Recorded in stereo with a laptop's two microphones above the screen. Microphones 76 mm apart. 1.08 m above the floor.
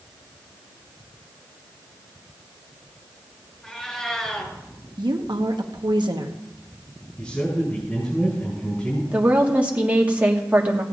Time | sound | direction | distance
3.6 | a cat meowing | 10° left (ahead or behind) | 4.5 m
5.0 | a woman speaking | 80° right | 1.1 m
7.2 | a man speaking | 20° left (ahead or behind) | 6 m
9.1 | a woman speaking | 20° right (ahead or behind) | 1.4 m